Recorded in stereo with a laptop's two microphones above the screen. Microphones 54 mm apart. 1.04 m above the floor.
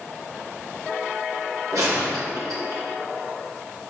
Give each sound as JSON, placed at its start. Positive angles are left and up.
{"t": 1.7, "sound": "a gunshot", "side_deg": -80, "distance_m": 2.5}